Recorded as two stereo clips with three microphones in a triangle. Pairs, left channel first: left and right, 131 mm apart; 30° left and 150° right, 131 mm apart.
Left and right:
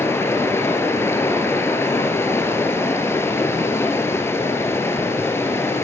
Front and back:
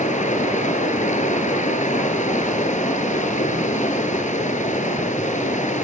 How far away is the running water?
About 3 m.